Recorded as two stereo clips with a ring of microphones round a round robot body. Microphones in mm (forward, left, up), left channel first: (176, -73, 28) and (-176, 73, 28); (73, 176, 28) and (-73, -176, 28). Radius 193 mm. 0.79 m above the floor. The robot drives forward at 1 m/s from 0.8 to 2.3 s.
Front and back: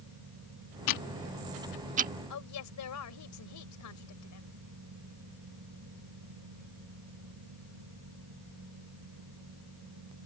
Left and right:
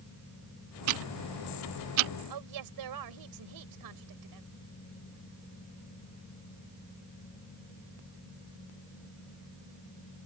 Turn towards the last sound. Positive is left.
turn(degrees=-70)